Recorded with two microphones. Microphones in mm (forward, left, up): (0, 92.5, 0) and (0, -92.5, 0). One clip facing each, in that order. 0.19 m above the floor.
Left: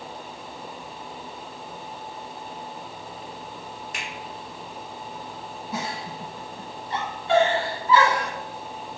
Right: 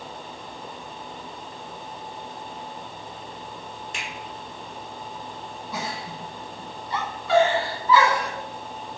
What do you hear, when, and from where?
3.9 s a finger snap: 30° right (ahead or behind), 1.6 m
5.7 s a giggle: 30° left (ahead or behind), 1.1 m